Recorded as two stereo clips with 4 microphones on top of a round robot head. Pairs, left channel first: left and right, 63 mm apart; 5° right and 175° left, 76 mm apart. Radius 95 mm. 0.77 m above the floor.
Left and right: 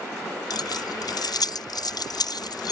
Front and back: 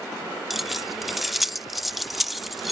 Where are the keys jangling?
90° left.